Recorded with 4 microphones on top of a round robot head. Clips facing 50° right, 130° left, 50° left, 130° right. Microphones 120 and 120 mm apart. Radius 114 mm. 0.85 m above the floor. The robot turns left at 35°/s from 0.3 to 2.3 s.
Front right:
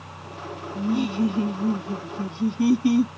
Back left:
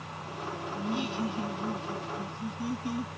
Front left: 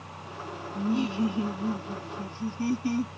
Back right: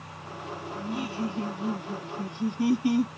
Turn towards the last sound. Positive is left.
turn(degrees=-55)